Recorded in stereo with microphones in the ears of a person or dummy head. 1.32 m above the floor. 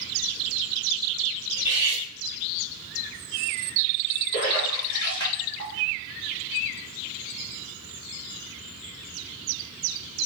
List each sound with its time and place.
1.6 s cutlery clinking: 15° right (ahead or behind), 1.4 m
4.3 s a splash: 25° left (ahead or behind), 1.9 m